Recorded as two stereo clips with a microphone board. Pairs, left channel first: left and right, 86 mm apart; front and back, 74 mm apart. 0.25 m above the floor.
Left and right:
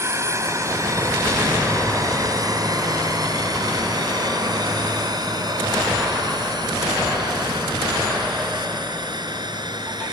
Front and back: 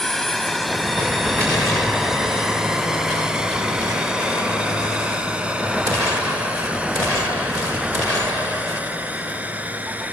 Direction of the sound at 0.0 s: 80° right.